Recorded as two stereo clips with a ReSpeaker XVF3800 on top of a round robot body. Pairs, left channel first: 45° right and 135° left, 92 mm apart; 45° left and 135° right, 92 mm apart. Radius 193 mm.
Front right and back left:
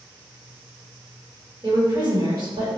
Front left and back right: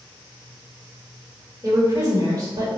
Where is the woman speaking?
175° left, 1.4 m.